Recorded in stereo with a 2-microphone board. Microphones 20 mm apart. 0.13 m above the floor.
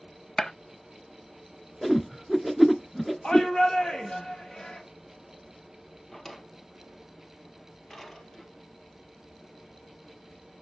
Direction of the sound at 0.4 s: 40° left (ahead or behind).